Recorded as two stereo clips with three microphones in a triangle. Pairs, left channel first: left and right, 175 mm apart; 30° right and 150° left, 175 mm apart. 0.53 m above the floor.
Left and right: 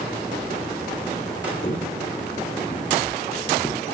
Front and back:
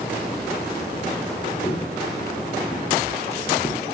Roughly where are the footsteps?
Ahead left.